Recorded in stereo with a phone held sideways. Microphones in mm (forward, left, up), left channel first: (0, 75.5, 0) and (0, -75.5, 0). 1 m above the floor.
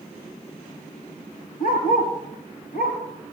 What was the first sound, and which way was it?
A dog barking, 75° left (ahead or behind).